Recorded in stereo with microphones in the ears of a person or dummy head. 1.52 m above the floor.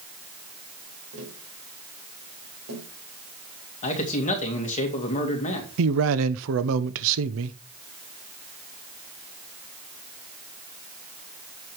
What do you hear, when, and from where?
1.1 s tapping: 75° right (ahead or behind), 3.5 m
3.8 s a man speaking: 35° left (ahead or behind), 2.0 m
5.8 s a man speaking: 75° right (ahead or behind), 0.8 m